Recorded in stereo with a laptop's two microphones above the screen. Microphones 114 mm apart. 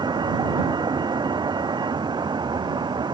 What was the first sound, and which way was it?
A vehicle, 40° right (ahead or behind).